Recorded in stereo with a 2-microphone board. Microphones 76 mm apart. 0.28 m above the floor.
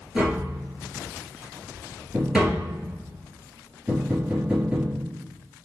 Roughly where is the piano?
No piano in this recording.